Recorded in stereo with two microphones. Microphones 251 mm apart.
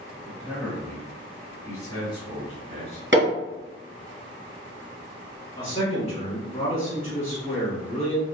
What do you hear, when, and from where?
0.2 s a man speaking: 5° right (ahead or behind), 1.9 m; by 3.0 s 25° left (ahead or behind), 1.7 m
3.1 s hammering: 45° right (ahead or behind), 2.0 m
5.6 s a man speaking: 25° left (ahead or behind), 1.5 m